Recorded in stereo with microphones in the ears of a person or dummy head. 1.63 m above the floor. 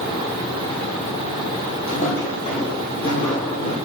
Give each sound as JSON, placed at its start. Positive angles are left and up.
{"t": 1.9, "sound": "footsteps", "side_deg": 35, "distance_m": 4.0}